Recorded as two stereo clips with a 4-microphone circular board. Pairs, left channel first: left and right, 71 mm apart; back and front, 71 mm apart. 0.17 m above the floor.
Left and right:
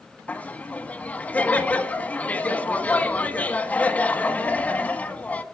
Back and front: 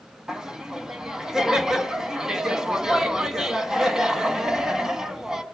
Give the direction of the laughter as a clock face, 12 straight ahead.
10 o'clock.